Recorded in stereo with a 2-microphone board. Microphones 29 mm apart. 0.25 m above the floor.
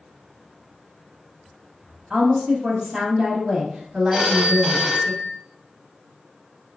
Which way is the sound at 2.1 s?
5° right (ahead or behind).